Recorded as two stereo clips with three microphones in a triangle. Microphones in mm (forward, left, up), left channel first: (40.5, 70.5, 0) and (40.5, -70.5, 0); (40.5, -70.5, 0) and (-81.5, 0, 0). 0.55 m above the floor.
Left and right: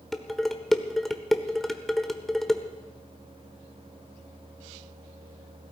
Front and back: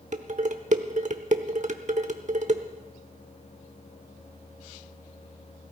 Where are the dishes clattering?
Straight behind, 0.9 m.